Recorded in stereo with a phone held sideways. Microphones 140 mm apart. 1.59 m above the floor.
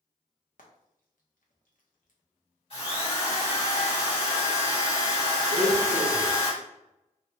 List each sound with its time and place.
0.6 s frying: 70° left (ahead or behind), 0.7 m
2.7 s a drill: 45° left (ahead or behind), 1.7 m
5.5 s a blender: 50° right (ahead or behind), 0.6 m